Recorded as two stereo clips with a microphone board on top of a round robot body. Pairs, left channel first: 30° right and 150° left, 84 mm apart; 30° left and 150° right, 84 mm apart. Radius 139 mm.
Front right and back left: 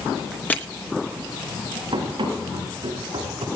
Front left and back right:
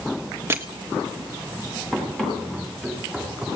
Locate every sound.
0.5 s crushing: 95° right, 2 m
1.9 s running footsteps: 110° left, 9.5 m; by 3.5 s 120° left, 9.5 m